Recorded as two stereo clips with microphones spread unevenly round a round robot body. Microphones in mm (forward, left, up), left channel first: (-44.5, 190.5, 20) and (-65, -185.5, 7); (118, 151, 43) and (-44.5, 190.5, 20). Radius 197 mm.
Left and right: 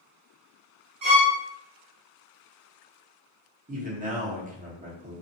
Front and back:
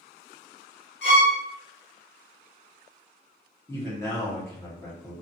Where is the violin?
20° right, 1.4 m.